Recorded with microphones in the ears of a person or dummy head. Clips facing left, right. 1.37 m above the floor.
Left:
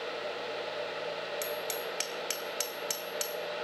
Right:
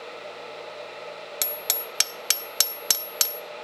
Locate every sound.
1.4 s hammering: 75° right (ahead or behind), 0.5 m